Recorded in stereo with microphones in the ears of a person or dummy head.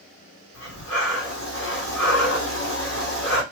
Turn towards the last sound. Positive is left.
turn(degrees=60)  # may be behind; listen again after turning